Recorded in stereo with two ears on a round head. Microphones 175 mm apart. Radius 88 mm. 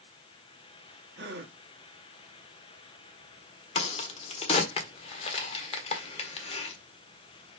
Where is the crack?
30° left (ahead or behind), 1.5 m.